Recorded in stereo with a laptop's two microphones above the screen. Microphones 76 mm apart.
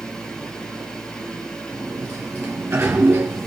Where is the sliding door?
35° right (ahead or behind), 3 m.